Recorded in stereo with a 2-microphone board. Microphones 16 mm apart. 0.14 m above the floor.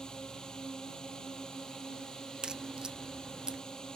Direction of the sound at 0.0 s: 70° left (ahead or behind).